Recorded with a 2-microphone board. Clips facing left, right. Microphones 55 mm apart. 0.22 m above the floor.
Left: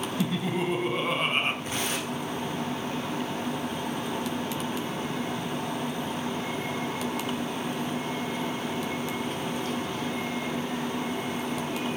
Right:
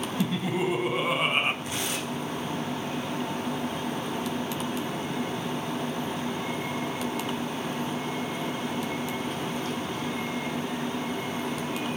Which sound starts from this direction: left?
Tearing paper, at 1.6 s.